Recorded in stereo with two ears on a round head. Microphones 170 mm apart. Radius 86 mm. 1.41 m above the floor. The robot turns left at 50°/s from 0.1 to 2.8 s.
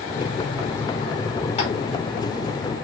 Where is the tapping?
35° left (ahead or behind), 4 m; by 1.7 s 40° left (ahead or behind), 4 m.